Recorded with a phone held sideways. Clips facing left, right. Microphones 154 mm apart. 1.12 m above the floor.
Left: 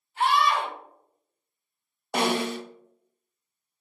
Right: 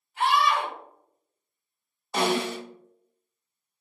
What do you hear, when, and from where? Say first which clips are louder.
0.2 s a scream: even; 30° left (ahead or behind), 1.6 m
2.1 s a snare drum: even; 60° left (ahead or behind), 0.8 m